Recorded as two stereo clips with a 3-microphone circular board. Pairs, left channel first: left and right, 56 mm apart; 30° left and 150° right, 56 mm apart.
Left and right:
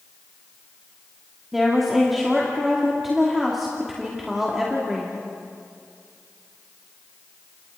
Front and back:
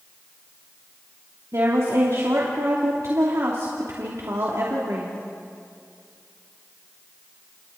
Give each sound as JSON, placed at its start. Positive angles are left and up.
{"t": 1.5, "sound": "a woman speaking", "azimuth_deg": -175, "distance_m": 2.5}